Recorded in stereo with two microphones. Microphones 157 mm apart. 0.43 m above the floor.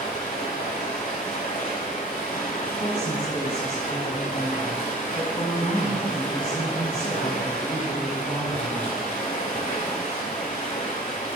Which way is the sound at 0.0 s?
50° left (ahead or behind).